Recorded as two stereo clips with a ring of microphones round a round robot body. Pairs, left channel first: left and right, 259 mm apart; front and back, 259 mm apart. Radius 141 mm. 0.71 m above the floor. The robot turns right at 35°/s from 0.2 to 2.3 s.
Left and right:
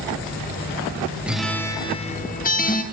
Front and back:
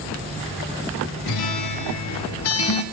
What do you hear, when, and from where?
1.3 s a guitar: 5° right, 1.0 m; by 2.8 s 30° left, 1.0 m